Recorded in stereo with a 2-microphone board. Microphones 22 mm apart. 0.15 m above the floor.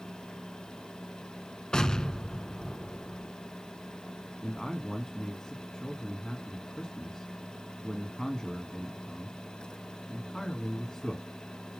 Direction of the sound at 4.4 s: 20° left (ahead or behind).